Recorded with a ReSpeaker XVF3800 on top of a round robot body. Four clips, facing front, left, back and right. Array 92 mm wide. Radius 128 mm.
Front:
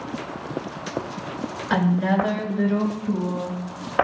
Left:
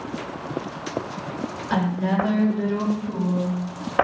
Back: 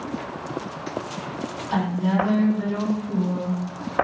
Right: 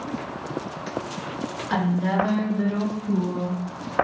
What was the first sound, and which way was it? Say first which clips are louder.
A woman speaking: even, front 2 dB; 10° left.